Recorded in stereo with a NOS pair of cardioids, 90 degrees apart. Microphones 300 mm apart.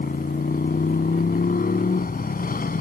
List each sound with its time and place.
0.0 s a motorcycle: 30° left